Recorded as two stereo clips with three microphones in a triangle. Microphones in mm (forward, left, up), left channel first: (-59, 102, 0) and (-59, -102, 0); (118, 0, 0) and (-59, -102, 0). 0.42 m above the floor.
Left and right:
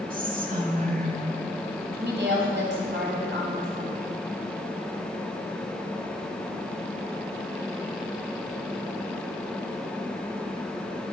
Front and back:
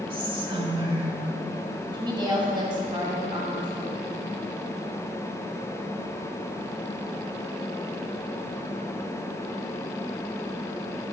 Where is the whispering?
100° right, 1.5 m.